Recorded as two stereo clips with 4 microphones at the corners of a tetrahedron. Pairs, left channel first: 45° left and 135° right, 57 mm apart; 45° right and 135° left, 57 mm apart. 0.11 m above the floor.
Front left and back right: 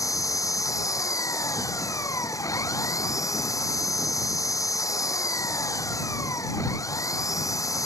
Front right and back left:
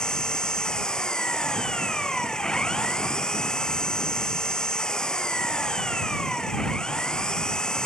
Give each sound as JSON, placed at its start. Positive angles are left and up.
{"t": 0.0, "sound": "an engine running", "azimuth_deg": 35}